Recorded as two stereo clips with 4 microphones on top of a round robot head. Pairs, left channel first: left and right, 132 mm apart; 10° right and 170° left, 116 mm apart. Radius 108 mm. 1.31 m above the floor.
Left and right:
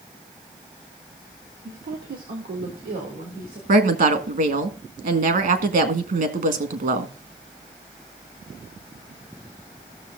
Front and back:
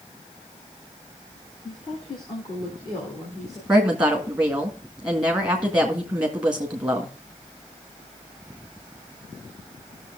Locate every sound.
1.6 s a woman speaking: 60° right, 1.1 m; by 3.6 s 80° right, 3 m
3.7 s a woman speaking: 105° right, 1.7 m